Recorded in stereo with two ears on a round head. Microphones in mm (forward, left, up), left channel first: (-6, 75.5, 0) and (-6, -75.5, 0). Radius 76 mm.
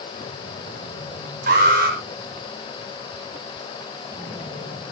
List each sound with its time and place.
1.5 s an alarm: 60° right (ahead or behind), 7.5 m